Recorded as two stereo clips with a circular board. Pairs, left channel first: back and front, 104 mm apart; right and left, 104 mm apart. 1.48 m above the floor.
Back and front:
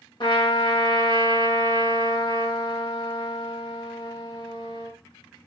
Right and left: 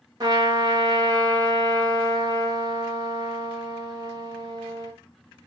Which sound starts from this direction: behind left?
A trumpet, at 0.2 s.